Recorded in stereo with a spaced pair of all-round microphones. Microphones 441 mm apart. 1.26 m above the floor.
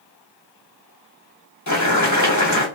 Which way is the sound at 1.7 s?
40° left (ahead or behind).